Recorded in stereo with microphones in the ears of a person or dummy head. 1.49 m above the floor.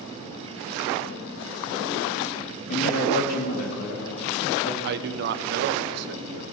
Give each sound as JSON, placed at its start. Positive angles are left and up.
{"t": 2.7, "sound": "a woman speaking", "side_deg": 60, "distance_m": 1.8}
{"t": 4.8, "sound": "a man speaking", "side_deg": -60, "distance_m": 0.5}